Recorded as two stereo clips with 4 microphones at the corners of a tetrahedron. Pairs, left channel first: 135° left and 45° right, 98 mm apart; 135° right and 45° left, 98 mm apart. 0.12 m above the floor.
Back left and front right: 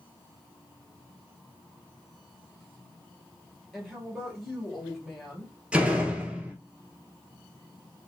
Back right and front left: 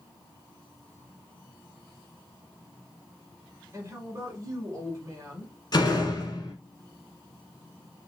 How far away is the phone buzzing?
No phone buzzing in this recording.